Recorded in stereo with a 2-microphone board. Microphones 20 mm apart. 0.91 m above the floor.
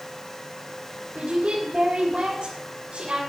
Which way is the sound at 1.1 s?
70° right (ahead or behind).